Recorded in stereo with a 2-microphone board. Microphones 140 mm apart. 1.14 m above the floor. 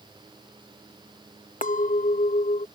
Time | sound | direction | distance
1.6 | a clink | 75° left (ahead or behind) | ?